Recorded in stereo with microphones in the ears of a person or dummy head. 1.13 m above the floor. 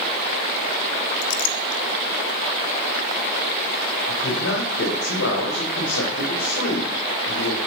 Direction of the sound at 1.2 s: 60° left (ahead or behind).